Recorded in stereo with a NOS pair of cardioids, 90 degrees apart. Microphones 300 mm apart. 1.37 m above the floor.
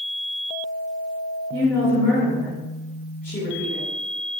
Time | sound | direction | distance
1.5 | a woman speaking | 35° left | 1.0 m